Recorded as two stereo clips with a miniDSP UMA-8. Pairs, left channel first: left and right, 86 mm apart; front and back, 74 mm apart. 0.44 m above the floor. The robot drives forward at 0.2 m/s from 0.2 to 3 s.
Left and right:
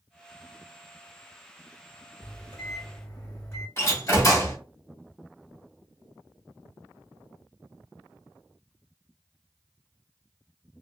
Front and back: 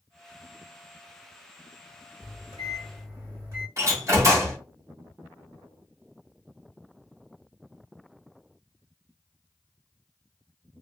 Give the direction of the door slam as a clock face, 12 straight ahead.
7 o'clock.